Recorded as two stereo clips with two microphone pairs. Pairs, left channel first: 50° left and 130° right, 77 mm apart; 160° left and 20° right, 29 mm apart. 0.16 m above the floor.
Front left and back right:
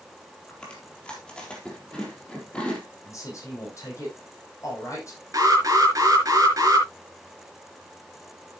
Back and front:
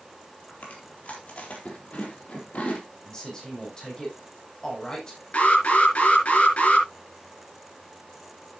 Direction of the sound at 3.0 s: 95° left.